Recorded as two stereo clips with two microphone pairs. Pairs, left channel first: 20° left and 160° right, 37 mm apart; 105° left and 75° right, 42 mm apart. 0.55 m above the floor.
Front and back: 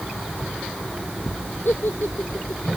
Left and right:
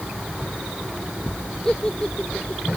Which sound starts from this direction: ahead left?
A giggle, at 1.6 s.